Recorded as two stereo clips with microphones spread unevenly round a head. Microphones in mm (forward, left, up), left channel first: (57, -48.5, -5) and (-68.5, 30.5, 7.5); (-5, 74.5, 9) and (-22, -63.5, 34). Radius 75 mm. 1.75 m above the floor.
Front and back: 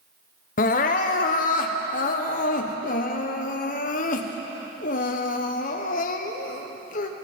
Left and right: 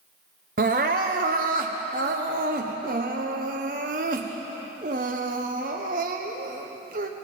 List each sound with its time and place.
0.6 s crying: 70° right, 0.9 m